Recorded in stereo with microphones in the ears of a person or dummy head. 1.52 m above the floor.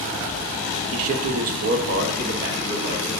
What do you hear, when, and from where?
0.9 s a man speaking: 70° right (ahead or behind), 0.9 m; by 3.2 s 40° right (ahead or behind), 2 m